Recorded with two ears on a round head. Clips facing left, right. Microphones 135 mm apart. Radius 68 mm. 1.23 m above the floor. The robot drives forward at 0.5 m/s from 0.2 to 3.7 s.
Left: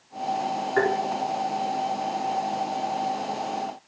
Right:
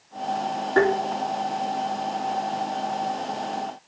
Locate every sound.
0.8 s tapping: 80° right, 3 m